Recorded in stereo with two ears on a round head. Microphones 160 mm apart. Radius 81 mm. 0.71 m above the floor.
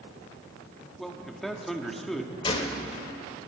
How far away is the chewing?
No chewing in this recording.